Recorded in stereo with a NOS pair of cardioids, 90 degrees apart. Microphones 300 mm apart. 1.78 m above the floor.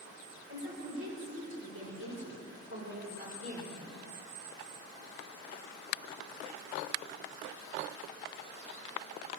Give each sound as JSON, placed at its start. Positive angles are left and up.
{"t": 0.5, "sound": "a woman speaking", "azimuth_deg": -50, "distance_m": 7.0}